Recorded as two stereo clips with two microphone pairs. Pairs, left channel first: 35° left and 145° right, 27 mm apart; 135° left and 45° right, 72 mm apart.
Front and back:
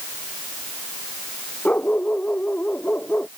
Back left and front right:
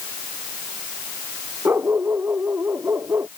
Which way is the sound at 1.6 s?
15° left.